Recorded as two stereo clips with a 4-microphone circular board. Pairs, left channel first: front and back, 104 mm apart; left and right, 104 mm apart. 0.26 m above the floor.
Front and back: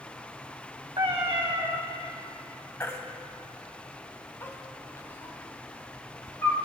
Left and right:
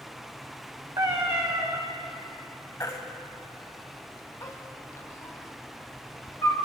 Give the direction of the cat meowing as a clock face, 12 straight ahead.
5 o'clock.